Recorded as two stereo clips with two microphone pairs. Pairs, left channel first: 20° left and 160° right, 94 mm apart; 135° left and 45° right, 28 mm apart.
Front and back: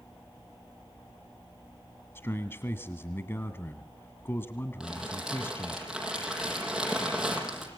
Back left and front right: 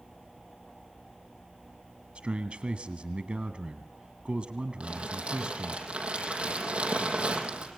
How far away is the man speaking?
About 1.6 m.